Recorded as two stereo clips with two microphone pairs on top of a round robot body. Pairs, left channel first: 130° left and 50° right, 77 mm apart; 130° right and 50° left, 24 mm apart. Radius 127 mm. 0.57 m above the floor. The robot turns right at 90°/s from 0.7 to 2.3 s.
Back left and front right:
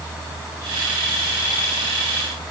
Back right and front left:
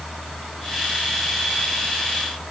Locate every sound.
Only background noise.